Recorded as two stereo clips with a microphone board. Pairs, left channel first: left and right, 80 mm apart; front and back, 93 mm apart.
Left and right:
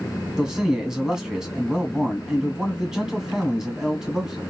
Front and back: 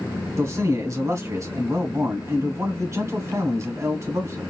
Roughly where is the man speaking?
Behind.